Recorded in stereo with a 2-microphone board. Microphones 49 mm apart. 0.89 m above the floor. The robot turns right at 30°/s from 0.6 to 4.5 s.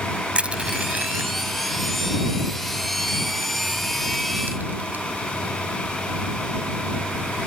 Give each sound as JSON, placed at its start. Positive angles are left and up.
{"t": 0.3, "sound": "crushing", "side_deg": -25}